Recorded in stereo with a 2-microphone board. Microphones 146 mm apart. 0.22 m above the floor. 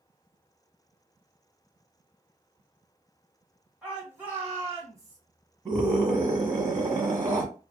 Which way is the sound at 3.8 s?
5° right (ahead or behind).